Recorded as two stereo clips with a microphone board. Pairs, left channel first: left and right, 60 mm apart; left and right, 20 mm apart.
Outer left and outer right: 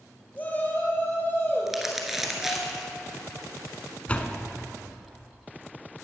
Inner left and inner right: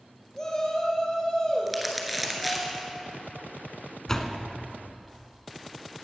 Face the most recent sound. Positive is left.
turn(degrees=25)  # may be behind; listen again after turning